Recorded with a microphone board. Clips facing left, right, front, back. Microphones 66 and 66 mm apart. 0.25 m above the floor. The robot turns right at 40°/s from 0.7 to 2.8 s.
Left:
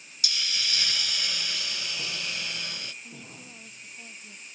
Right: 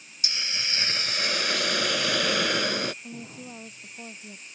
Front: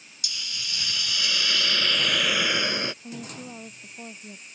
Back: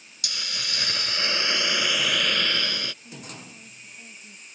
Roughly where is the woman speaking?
Ahead right.